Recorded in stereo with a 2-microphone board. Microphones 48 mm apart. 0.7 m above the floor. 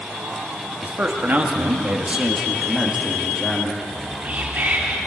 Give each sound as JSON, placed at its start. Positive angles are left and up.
{"t": 0.8, "sound": "a man speaking", "side_deg": -40, "distance_m": 1.6}
{"t": 3.8, "sound": "whispering", "side_deg": -35, "distance_m": 1.7}